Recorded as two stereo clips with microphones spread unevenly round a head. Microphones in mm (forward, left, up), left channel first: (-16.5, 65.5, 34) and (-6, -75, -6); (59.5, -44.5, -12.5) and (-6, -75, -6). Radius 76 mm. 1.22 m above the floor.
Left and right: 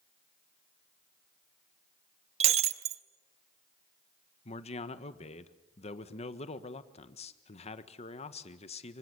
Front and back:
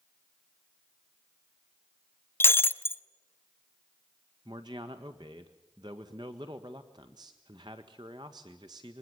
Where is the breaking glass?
30° right, 0.8 m.